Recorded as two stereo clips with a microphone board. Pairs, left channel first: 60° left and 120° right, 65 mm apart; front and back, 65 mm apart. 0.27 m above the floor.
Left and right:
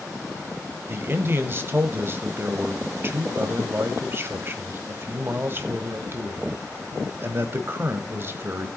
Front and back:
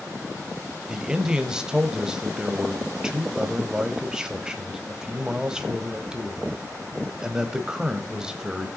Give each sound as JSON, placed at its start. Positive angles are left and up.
{"t": 0.9, "sound": "a man speaking", "azimuth_deg": -105, "distance_m": 1.1}